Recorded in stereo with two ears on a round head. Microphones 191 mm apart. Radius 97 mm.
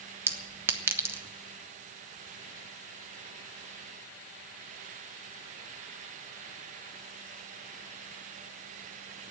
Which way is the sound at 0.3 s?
10° right (ahead or behind).